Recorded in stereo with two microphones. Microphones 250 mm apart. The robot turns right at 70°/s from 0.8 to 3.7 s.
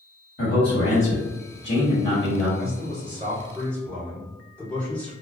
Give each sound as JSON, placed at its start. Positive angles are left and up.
{"t": 0.4, "sound": "a man speaking", "azimuth_deg": 55, "distance_m": 1.4}
{"t": 2.6, "sound": "a man speaking", "azimuth_deg": -75, "distance_m": 1.9}